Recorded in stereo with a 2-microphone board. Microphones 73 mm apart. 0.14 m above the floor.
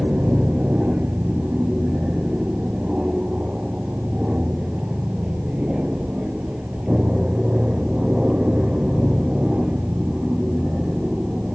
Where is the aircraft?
15° right (ahead or behind); by 11.6 s 10° right (ahead or behind).